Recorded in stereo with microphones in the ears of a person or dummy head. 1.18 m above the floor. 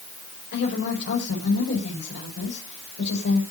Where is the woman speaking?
60° left (ahead or behind), 6.5 m.